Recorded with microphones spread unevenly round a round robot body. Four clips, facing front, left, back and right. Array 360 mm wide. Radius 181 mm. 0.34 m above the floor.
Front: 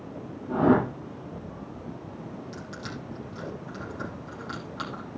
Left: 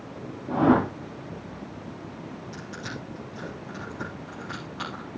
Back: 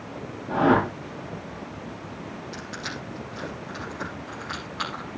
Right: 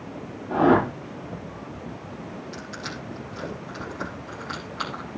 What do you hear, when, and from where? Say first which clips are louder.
0.5 s a whoosh: right 2 dB, back 1 dB; 45° left, 9 m
2.5 s crushing: right 2 dB, back 3 dB; 40° left, 5 m